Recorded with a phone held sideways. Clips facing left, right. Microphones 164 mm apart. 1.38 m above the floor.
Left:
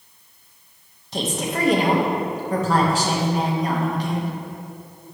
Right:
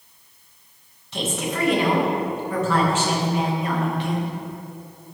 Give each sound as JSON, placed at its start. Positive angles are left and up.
{"t": 1.1, "sound": "a woman speaking", "side_deg": 40, "distance_m": 1.6}